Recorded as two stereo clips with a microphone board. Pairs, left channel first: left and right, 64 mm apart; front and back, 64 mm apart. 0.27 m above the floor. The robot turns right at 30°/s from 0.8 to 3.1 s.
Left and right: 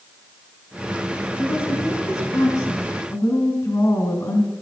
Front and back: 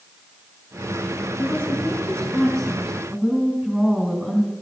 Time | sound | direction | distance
1.4 | a woman speaking | 55° left | 3 m